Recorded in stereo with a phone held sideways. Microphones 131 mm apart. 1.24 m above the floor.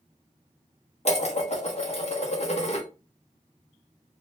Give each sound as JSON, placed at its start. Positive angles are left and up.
{"t": 1.1, "sound": "dishes clattering", "side_deg": 55, "distance_m": 0.6}